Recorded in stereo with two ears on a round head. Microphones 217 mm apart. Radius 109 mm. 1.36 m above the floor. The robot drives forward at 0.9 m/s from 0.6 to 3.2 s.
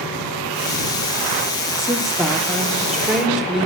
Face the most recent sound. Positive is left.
turn(degrees=0)  # may be behind; listen again after turning